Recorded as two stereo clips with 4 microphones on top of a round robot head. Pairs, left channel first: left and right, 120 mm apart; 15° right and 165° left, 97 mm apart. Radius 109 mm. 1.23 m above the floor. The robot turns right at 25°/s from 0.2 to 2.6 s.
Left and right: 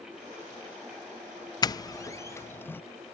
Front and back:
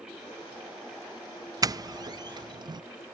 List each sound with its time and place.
1.6 s a doorbell: 135° left, 0.6 m; by 2.8 s 155° left, 0.6 m